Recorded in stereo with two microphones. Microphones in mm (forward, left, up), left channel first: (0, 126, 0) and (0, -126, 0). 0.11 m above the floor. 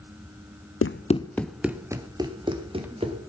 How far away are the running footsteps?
About 0.6 m.